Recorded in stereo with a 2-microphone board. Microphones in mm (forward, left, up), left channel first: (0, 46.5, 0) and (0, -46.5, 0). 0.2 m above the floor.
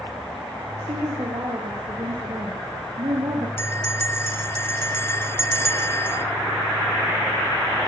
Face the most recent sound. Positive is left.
turn(degrees=25)  # may be behind; listen again after turning